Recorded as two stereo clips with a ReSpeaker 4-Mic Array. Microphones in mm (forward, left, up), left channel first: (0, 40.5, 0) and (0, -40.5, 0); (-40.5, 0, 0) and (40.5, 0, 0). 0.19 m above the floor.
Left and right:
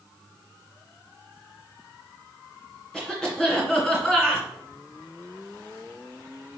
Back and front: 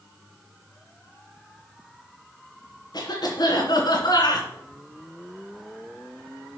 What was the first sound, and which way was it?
A cough, 170° left.